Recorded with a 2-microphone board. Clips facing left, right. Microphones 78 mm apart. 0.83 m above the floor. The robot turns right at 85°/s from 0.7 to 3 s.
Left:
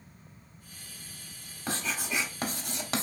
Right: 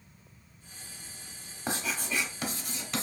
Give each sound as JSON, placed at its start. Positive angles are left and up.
{"t": 1.7, "sound": "writing", "side_deg": -20, "distance_m": 0.8}